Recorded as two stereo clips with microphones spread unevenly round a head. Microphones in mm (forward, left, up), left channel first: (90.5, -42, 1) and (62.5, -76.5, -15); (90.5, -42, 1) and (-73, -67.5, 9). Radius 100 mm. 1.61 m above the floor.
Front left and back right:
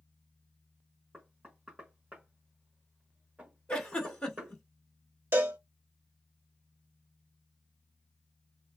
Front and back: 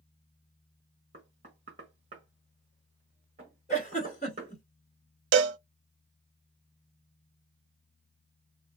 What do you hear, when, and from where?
1.1 s knocking: 135° left, 1.3 m
3.7 s a giggle: 50° left, 1.6 m
5.3 s a cowbell: straight behind, 0.5 m